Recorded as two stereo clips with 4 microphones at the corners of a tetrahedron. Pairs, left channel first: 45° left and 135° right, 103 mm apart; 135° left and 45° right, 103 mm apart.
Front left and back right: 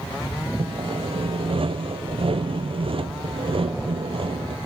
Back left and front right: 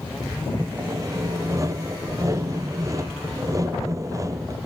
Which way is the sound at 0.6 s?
105° right.